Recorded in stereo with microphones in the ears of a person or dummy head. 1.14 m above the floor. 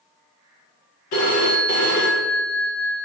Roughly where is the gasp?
No gasp in this recording.